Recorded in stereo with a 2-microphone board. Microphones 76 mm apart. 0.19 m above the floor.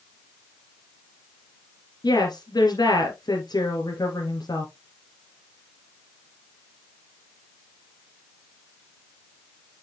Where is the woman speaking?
65° left (ahead or behind), 3 m.